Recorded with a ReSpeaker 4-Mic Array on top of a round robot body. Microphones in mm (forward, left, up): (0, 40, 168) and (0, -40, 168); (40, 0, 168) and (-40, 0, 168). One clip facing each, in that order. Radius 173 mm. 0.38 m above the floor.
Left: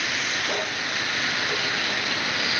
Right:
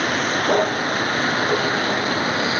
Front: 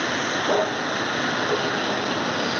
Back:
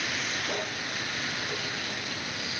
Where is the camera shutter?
I don't hear a camera shutter.